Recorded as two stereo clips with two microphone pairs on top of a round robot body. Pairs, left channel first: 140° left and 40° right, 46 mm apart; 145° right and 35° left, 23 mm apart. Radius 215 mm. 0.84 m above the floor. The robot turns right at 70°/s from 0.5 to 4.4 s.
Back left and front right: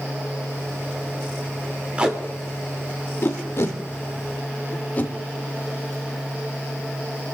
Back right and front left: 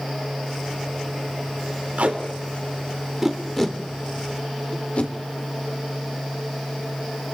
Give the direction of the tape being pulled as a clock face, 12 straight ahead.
11 o'clock.